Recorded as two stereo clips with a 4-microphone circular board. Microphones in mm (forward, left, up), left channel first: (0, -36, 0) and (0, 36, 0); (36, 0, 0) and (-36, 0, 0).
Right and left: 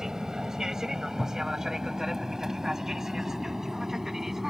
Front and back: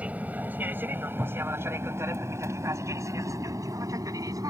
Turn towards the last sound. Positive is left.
turn(degrees=170)